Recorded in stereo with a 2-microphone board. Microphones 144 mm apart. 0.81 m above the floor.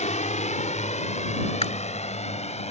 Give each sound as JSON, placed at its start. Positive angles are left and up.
{"t": 0.0, "sound": "a drone", "side_deg": 55}
{"t": 1.6, "sound": "chewing", "side_deg": 50}